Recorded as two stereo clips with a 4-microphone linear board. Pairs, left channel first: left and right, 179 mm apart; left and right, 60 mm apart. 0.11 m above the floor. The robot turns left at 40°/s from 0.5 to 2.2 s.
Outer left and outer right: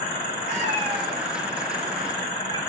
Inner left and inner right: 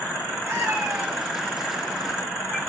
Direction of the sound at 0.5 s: 45° right (ahead or behind).